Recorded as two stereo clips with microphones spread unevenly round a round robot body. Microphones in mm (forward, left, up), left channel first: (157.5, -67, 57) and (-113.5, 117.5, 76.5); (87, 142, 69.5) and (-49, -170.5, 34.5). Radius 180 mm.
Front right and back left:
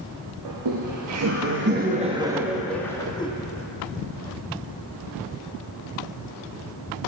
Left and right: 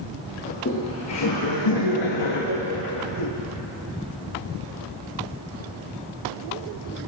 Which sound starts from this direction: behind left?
Laughter, at 0.5 s.